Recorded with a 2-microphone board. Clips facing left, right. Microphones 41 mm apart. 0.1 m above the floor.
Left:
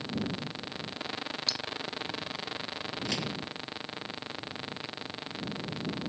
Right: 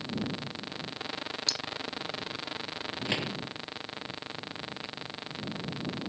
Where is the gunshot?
25° right (ahead or behind).